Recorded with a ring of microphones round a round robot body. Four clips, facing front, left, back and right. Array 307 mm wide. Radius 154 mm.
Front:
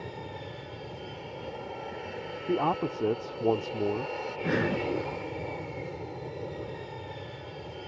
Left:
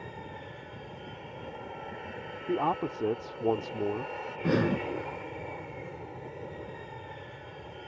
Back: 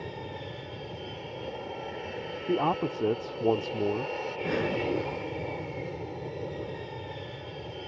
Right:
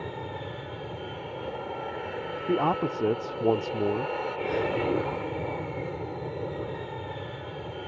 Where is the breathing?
70° left.